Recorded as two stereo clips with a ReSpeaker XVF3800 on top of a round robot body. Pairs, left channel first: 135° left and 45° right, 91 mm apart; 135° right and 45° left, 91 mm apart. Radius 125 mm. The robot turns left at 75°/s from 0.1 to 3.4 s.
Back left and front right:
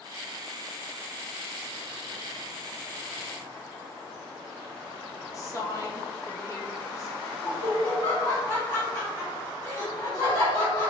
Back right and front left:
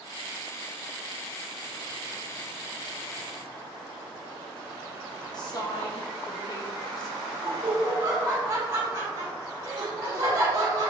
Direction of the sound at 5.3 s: 175° right.